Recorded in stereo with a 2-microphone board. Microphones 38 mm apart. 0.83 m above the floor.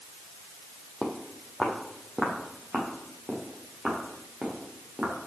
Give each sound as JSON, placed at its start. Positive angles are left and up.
{"t": 1.0, "sound": "footsteps", "side_deg": 0, "distance_m": 1.6}